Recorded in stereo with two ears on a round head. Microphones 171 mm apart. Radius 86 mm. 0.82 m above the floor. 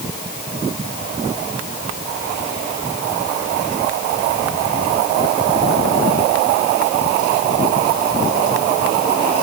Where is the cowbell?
No cowbell in this recording.